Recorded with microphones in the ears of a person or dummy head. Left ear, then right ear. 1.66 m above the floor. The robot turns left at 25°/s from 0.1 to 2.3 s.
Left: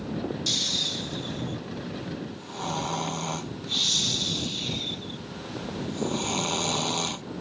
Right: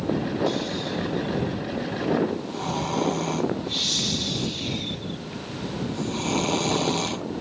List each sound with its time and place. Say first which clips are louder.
0.5 s snoring: left 2 dB; 55° left; by 7.2 s 10° left